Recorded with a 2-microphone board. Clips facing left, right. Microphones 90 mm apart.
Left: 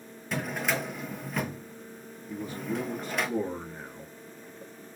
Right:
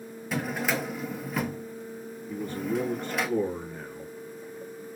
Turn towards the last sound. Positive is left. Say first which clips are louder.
# right 3 dB
turn(degrees=10)  # may be behind; listen again after turning